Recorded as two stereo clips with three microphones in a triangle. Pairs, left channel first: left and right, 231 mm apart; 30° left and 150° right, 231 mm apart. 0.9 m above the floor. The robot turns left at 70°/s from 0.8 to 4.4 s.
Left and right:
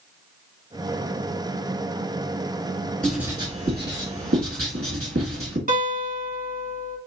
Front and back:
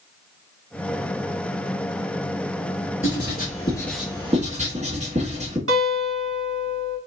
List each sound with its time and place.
3.0 s writing: 5° left, 2.5 m; by 5.6 s 90° right, 2.5 m
5.7 s a guitar: 140° right, 2 m